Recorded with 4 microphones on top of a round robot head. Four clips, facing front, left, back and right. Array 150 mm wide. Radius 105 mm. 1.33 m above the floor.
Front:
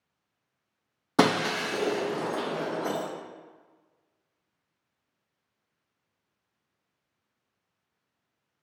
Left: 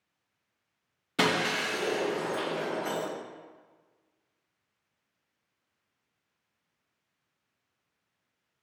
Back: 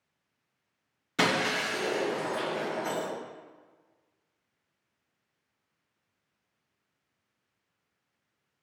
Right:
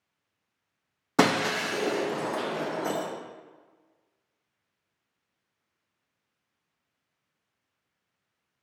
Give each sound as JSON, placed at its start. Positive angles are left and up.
{"t": 1.2, "sound": "breaking glass", "azimuth_deg": -40, "distance_m": 0.7}